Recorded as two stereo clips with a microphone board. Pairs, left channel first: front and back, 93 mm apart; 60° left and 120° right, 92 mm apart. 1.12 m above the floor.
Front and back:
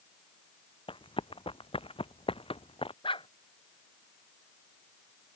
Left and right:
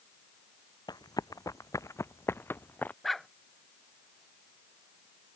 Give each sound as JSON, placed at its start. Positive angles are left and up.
{"t": 0.9, "sound": "running footsteps", "azimuth_deg": 15}
{"t": 3.0, "sound": "a dog barking", "azimuth_deg": -30}